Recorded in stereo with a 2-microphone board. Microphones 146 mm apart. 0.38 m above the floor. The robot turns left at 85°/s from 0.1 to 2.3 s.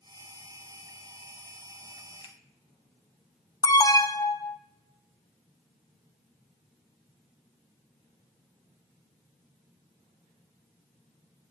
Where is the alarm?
25° left (ahead or behind), 0.7 m.